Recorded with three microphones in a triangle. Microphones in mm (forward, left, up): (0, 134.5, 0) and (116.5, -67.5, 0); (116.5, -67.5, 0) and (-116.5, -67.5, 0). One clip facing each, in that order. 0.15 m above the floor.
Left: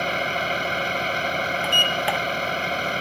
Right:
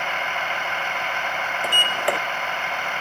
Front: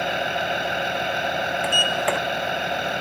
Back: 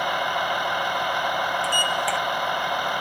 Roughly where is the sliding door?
Ahead right.